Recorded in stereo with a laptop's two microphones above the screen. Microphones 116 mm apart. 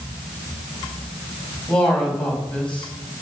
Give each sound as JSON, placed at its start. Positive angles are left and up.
{"t": 1.7, "sound": "a man speaking", "side_deg": 10, "distance_m": 4.5}